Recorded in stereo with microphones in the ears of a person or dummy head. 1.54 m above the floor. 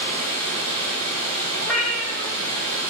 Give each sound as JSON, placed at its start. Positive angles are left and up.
{"t": 0.0, "sound": "running water", "side_deg": -40, "distance_m": 3.5}
{"t": 1.6, "sound": "a cat meowing", "side_deg": -5, "distance_m": 3.0}